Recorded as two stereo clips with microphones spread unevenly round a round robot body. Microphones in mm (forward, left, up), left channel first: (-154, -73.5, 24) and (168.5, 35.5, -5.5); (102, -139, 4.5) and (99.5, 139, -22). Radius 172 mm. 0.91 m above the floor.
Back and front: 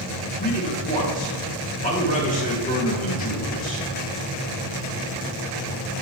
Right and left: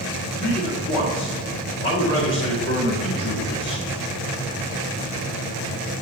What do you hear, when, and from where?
0.4 s a man speaking: 105° right, 1.0 m